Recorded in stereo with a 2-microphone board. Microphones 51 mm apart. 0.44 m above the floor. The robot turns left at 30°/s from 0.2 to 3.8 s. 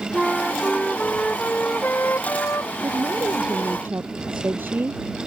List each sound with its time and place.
0.1 s a flute: 170° right; by 2.7 s 115° left
2.8 s a woman speaking: 75° right (ahead or behind); by 5.0 s 45° right (ahead or behind)